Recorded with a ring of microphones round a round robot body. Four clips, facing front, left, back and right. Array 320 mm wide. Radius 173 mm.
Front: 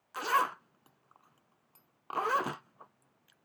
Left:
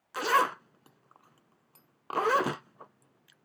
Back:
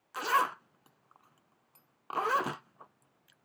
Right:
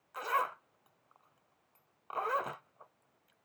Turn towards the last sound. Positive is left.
turn(degrees=90)